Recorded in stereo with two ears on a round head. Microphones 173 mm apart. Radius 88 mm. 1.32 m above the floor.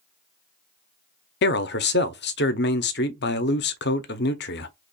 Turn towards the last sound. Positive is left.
turn(degrees=60)  # may be behind; listen again after turning